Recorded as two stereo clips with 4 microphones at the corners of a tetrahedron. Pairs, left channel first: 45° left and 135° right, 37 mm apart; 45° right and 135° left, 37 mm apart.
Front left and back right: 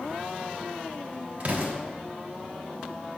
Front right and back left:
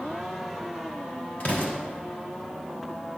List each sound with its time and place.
1.4 s an explosion: 90° right, 1.1 m